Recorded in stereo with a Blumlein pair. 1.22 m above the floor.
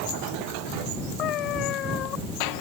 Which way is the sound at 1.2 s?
35° left.